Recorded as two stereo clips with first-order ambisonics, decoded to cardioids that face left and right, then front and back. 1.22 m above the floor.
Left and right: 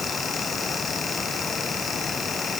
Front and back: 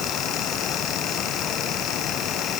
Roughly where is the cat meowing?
I don't hear a cat meowing.